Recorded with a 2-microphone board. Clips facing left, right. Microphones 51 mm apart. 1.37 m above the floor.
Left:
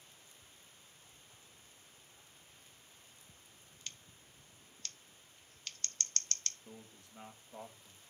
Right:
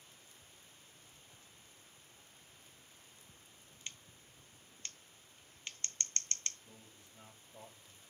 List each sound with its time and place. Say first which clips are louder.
3.9 s scissors: right 1 dB; 20° right (ahead or behind), 0.7 m
6.7 s a man speaking: left 5 dB; 65° left (ahead or behind), 2 m